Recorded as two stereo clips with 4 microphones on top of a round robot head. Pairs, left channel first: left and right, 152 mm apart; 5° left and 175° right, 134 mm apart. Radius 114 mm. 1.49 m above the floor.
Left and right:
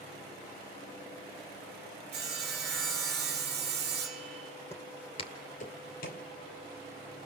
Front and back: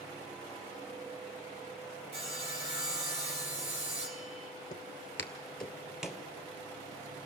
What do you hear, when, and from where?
2.1 s sawing: 120° right, 2 m
4.7 s footsteps: 25° left, 1.7 m; by 6.3 s 100° left, 2.5 m